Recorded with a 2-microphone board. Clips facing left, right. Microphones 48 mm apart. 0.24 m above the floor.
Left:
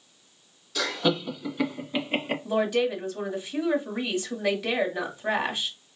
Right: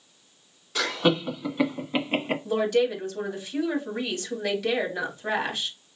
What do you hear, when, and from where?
0.8 s laughter: 35° right (ahead or behind), 2 m; by 2.4 s 15° right (ahead or behind), 2 m
2.5 s a woman speaking: 10° left (ahead or behind), 1.9 m